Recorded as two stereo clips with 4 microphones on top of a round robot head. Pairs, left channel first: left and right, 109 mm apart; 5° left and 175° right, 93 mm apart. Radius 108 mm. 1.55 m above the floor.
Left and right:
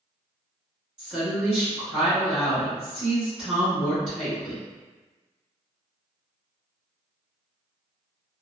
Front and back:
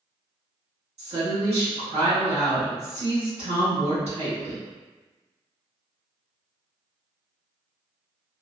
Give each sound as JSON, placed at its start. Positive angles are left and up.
{"t": 1.0, "sound": "a woman speaking", "azimuth_deg": -175, "distance_m": 1.5}